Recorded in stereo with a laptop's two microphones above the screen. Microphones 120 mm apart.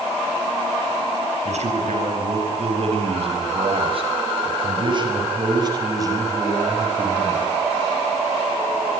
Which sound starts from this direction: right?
A man speaking, at 1.4 s.